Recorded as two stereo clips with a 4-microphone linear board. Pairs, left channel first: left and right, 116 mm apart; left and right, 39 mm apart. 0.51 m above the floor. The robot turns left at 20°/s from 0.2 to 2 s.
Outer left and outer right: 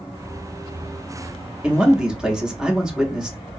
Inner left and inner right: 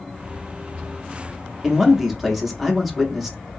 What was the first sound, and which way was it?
A man speaking, 10° right (ahead or behind).